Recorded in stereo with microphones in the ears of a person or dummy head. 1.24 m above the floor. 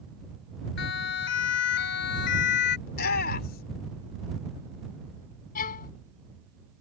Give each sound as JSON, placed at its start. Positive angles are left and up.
{"t": 0.8, "sound": "a siren", "side_deg": 70}
{"t": 2.9, "sound": "a shout", "side_deg": 55}
{"t": 5.5, "sound": "a violin", "side_deg": 55}